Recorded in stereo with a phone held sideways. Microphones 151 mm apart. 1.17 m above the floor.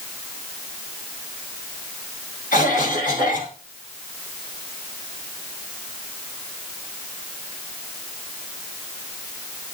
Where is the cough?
70° left (ahead or behind), 6 m.